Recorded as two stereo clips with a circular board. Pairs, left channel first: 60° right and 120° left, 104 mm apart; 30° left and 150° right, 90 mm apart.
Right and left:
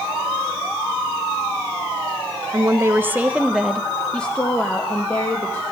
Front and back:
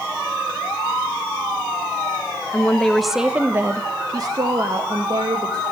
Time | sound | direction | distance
2.5 | a woman speaking | 85° left | 0.7 m